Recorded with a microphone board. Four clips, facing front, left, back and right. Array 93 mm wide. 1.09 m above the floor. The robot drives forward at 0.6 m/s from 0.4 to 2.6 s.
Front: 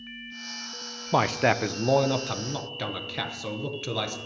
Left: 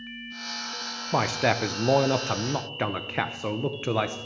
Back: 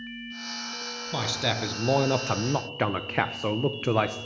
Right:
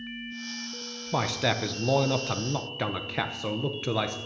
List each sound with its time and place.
1.1 s a man speaking: 15° left, 0.8 m; by 4.2 s 160° left, 0.7 m